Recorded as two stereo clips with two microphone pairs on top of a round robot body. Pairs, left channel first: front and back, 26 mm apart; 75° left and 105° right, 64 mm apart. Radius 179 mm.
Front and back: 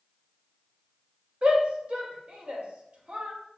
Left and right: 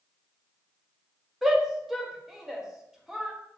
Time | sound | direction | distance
1.4 | a shout | 165° right | 1.0 m